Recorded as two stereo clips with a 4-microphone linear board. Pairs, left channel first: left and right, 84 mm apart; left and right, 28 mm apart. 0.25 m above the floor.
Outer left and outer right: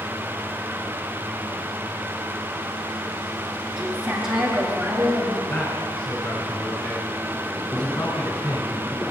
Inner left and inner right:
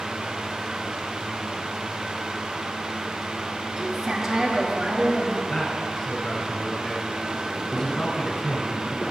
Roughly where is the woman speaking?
Centre.